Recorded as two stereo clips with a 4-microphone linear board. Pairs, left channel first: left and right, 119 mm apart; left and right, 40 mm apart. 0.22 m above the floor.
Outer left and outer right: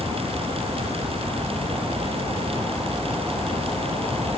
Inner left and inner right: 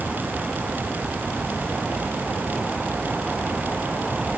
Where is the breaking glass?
No breaking glass in this recording.